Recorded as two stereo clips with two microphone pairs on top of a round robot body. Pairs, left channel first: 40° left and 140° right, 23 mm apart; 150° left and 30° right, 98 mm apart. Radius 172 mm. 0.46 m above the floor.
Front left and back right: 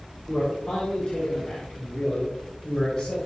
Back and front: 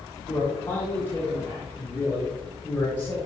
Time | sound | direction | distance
0.3 | a man speaking | 80° left | 4.5 m